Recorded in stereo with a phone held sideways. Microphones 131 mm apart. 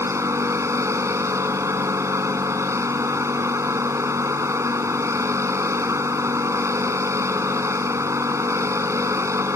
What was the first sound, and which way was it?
A machine running, 20° right (ahead or behind).